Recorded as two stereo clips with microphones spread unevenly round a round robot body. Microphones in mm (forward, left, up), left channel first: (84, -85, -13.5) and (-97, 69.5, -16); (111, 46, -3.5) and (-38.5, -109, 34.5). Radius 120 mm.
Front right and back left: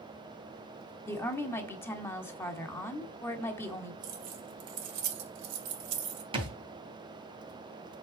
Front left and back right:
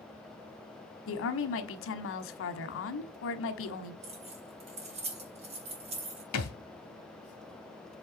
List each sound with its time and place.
1.1 s a woman speaking: 40° left, 1.3 m
4.0 s keys jangling: 160° left, 1.6 m
6.3 s a thud: 70° left, 1.9 m